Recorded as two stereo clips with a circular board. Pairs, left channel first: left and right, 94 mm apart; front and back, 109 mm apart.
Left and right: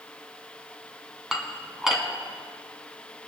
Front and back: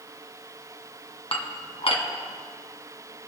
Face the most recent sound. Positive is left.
turn(degrees=-5)